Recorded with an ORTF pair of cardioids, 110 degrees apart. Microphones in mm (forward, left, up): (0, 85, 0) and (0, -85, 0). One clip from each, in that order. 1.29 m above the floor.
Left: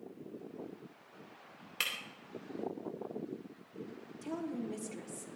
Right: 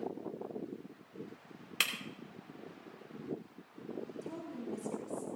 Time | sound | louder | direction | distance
1.8 | breaking glass | right 3 dB | 30° right | 2.5 m
4.2 | a woman speaking | left 3 dB | 45° left | 3 m